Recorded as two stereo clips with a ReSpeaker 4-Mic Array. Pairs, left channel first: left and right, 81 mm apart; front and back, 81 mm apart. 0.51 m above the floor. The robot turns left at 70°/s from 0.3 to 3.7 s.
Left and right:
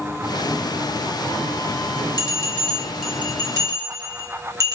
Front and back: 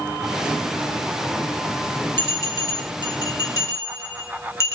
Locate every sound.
2.2 s a bell: 55° left, 2.5 m; by 4.8 s 50° right, 2.5 m